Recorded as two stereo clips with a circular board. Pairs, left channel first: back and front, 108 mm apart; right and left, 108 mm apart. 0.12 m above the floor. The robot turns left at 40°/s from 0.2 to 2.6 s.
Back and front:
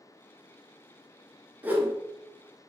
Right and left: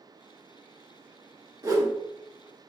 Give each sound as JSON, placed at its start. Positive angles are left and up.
{"t": 1.6, "sound": "a whoosh", "azimuth_deg": 65, "distance_m": 0.5}